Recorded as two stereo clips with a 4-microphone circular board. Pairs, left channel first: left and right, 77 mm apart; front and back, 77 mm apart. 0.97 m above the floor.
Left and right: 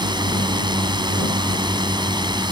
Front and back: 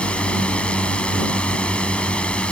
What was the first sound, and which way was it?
A drone, 75° right.